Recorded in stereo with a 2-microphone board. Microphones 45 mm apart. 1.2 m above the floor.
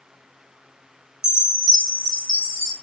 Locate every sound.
1.2 s a chime: 15° right (ahead or behind), 3.5 m